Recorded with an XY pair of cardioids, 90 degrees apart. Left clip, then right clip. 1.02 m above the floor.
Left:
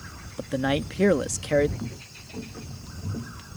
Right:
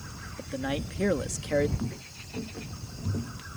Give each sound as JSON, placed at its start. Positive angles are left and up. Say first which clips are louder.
{"t": 0.4, "sound": "a man speaking", "louder": "left 7 dB", "azimuth_deg": 60}
{"t": 1.8, "sound": "footsteps", "louder": "even", "azimuth_deg": -5}